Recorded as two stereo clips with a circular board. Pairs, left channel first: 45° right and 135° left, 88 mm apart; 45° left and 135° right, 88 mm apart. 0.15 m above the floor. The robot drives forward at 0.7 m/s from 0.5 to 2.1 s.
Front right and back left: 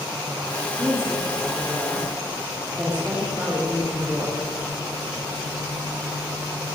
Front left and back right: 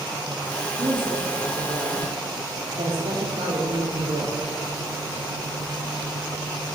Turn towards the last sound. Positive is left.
turn(degrees=-150)